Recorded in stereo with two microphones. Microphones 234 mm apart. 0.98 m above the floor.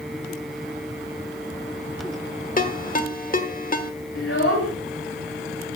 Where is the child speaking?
70° left (ahead or behind), 3.5 m.